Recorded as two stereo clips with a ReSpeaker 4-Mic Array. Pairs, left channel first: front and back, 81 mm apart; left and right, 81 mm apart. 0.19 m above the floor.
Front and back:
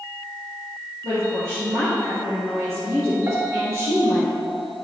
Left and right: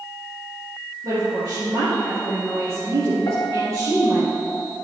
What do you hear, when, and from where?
1.0 s a woman speaking: 135° right, 3 m
3.3 s a piano: 135° left, 1.8 m